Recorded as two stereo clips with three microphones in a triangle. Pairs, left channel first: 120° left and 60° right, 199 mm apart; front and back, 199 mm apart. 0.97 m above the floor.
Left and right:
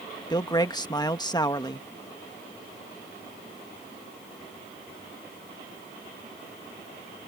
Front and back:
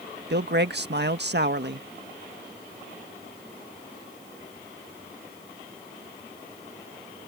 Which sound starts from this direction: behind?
A man speaking, at 0.3 s.